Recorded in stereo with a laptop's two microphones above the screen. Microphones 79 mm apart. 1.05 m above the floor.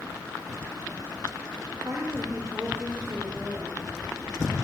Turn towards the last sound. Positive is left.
turn(degrees=-15)  # may be behind; listen again after turning